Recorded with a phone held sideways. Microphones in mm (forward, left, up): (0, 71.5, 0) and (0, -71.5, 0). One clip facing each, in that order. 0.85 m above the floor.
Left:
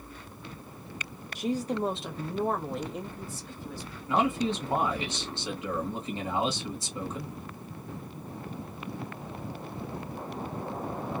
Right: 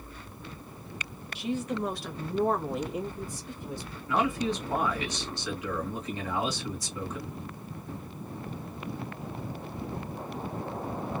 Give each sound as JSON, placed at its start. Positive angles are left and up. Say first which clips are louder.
{"t": 1.4, "sound": "a woman speaking", "louder": "left 2 dB", "side_deg": 45, "distance_m": 0.9}
{"t": 4.1, "sound": "a man speaking", "louder": "left 1 dB", "side_deg": 25, "distance_m": 1.8}